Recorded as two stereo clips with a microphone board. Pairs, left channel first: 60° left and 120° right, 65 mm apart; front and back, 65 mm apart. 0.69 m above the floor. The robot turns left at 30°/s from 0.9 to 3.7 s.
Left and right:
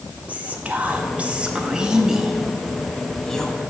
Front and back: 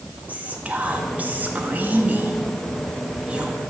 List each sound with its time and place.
0.3 s whispering: 155° right, 0.6 m; by 3.6 s 125° left, 0.6 m